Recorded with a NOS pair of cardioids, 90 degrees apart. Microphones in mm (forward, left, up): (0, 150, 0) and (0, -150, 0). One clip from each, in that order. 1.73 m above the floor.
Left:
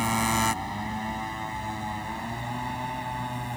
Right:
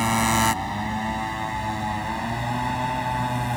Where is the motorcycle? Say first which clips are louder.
Right 4 dB; 35° right; by 3.6 s 55° right.